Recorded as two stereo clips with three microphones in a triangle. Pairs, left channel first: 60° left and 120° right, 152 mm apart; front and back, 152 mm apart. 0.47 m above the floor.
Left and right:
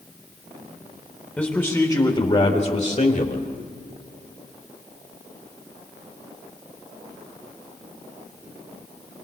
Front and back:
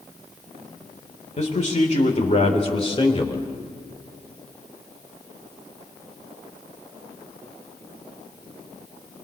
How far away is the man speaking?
About 2.0 m.